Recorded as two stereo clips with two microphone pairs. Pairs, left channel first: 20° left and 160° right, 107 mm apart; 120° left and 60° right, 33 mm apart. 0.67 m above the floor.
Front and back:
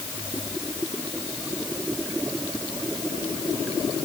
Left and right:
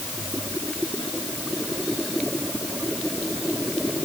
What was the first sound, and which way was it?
Only background noise.